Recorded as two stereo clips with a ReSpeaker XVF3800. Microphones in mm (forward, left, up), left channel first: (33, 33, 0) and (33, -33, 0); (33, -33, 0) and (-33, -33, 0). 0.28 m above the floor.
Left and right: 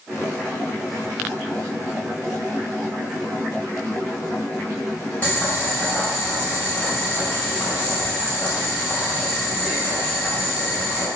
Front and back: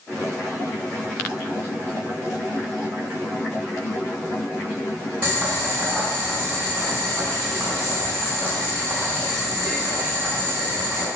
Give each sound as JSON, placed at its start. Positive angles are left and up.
{"t": 5.2, "sound": "boiling", "azimuth_deg": 130, "distance_m": 1.4}